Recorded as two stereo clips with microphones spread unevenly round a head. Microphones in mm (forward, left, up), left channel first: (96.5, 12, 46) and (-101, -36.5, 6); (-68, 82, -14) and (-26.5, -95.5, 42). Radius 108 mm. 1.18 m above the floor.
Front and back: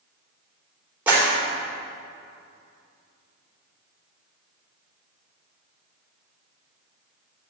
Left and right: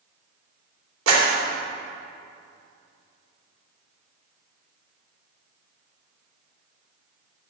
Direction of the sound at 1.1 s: 85° right.